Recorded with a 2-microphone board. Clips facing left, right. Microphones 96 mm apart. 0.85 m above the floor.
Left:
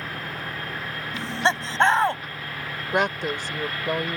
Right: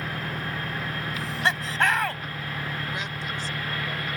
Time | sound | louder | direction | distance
0.0 | an engine running | right 1 dB | 15° right (ahead or behind) | ?
1.1 | laughter | left 4 dB | 30° left (ahead or behind) | ?
2.9 | a woman speaking | left 9 dB | 65° left (ahead or behind) | ?